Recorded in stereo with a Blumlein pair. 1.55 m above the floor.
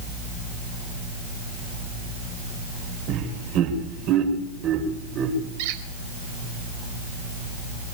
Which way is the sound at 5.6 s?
50° right.